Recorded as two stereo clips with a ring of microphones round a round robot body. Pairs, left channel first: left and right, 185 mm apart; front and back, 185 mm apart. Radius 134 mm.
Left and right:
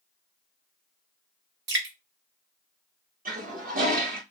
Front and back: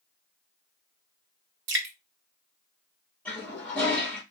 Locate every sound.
1.7 s dripping: 135° right, 0.6 m
3.2 s a toilet flushing: 80° right, 1.1 m